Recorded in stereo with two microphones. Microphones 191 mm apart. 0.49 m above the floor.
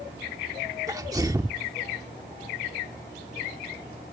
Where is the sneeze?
20° right (ahead or behind).